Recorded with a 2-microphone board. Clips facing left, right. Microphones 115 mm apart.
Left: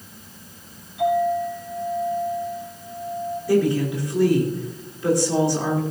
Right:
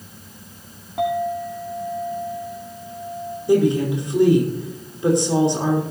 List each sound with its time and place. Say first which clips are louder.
1.0 s a clink: left 2 dB; 80° right, 5.5 m
3.5 s a woman speaking: right 3 dB; 20° right (ahead or behind), 5 m